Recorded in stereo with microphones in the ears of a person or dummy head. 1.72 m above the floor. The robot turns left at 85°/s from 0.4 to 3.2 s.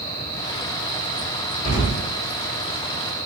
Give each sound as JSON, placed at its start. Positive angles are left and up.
{"t": 1.6, "sound": "an explosion", "azimuth_deg": 135, "distance_m": 1.1}